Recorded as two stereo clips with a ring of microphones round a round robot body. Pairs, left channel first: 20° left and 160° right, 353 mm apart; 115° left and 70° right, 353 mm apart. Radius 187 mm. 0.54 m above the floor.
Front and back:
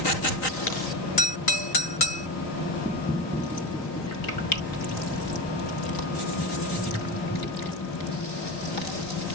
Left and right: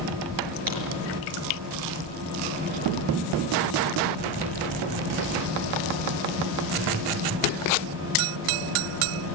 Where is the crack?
35° right, 5.5 m.